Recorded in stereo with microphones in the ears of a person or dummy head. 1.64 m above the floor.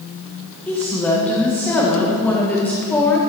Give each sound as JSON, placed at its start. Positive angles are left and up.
{"t": 0.7, "sound": "a woman speaking", "side_deg": 10, "distance_m": 1.5}